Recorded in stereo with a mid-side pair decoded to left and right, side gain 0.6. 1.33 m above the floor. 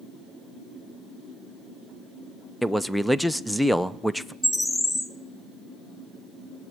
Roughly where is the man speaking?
Ahead.